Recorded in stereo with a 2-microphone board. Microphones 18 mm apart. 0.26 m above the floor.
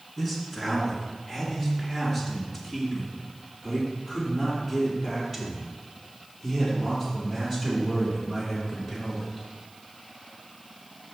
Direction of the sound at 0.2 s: 10° left (ahead or behind).